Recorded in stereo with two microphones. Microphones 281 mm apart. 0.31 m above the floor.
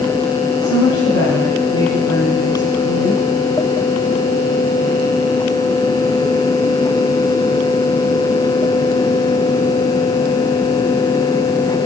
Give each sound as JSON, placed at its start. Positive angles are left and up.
{"t": 0.6, "sound": "a woman speaking", "side_deg": 55, "distance_m": 3.0}